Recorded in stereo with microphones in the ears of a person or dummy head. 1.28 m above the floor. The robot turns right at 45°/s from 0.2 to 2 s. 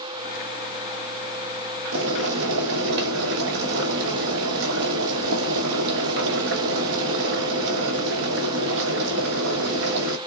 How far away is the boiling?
About 1.0 m.